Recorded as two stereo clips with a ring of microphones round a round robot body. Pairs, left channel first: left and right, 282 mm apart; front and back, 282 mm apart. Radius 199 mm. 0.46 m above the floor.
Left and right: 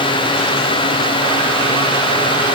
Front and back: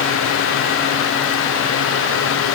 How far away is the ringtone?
I don't hear a ringtone.